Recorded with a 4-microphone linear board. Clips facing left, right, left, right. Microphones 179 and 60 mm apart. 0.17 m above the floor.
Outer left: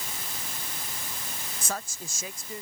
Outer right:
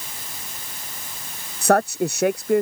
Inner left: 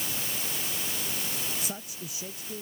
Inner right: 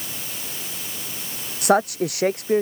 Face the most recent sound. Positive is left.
turn(degrees=-70)  # may be behind; listen again after turning